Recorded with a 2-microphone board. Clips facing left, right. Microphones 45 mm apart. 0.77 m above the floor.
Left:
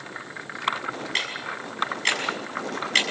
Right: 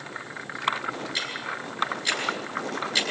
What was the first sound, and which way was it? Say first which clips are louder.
Ticking: left 2 dB; 65° left (ahead or behind).